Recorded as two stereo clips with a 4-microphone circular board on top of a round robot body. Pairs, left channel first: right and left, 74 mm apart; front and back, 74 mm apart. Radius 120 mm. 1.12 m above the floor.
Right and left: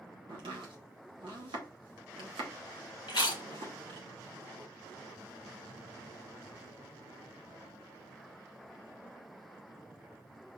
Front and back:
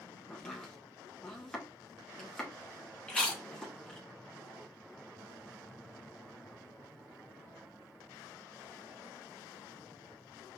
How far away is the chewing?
About 1.1 m.